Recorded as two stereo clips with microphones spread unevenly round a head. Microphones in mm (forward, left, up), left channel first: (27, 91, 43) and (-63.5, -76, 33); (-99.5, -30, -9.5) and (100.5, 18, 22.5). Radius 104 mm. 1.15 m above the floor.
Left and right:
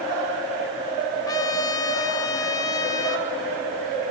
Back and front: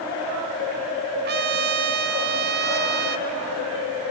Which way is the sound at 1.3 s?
10° right.